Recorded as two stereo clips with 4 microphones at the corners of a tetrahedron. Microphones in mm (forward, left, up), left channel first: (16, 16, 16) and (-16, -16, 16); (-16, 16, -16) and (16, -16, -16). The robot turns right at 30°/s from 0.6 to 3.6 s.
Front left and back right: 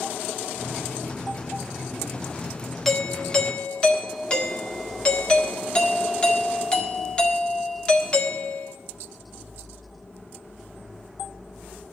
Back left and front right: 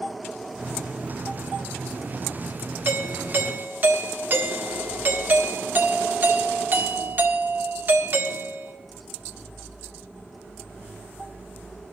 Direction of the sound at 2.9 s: 40° right.